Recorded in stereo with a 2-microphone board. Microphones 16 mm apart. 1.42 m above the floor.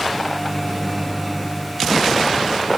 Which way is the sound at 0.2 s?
80° right.